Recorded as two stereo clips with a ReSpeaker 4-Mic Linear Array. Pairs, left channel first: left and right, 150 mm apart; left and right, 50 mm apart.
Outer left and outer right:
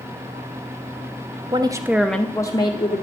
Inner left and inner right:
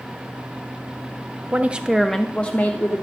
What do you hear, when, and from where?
1.5 s a woman speaking: 30° right (ahead or behind), 0.6 m; by 3.0 s 40° left (ahead or behind), 0.8 m